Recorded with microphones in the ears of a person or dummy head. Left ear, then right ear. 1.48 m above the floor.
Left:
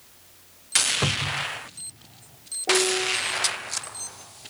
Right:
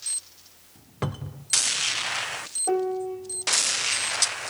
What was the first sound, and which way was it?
A cupboard door, centre (ahead or behind).